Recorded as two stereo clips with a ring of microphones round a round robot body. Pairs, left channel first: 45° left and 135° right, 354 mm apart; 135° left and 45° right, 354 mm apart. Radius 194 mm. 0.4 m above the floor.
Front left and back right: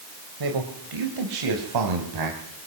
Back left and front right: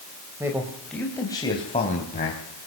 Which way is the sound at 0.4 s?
130° right.